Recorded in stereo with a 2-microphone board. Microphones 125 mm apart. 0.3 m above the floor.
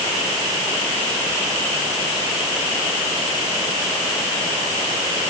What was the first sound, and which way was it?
Only background noise.